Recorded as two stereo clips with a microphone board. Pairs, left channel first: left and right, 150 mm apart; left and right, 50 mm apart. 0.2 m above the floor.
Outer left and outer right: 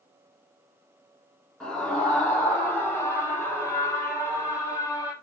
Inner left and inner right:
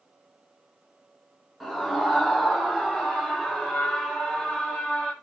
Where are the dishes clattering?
No dishes clattering in this recording.